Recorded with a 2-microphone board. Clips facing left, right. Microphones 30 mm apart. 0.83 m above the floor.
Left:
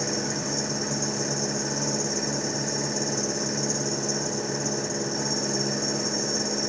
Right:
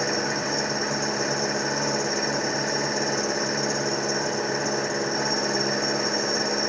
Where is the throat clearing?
No throat clearing in this recording.